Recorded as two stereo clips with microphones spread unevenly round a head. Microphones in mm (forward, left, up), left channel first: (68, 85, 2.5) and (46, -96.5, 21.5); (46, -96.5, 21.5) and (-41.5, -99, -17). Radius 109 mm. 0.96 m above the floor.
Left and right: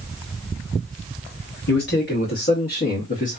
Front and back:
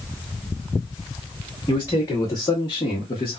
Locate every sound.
1.7 s a man speaking: 85° left, 1.5 m; by 3.4 s 50° left, 1.0 m